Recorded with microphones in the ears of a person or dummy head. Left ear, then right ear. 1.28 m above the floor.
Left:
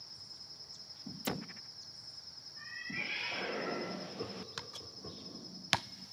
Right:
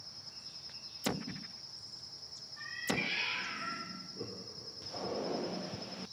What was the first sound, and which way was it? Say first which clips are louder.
A cat meowing: right 4 dB; 15° right (ahead or behind).